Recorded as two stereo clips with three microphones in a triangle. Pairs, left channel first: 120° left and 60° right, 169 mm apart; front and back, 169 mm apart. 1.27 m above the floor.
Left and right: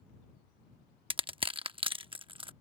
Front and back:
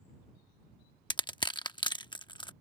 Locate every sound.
1.1 s crushing: 35° right